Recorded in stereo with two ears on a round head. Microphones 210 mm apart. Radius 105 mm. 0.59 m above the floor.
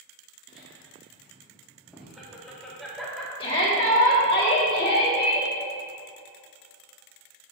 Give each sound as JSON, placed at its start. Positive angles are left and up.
{"t": 0.5, "sound": "laughter", "side_deg": -5, "distance_m": 1.1}
{"t": 3.4, "sound": "a shout", "side_deg": 25, "distance_m": 1.6}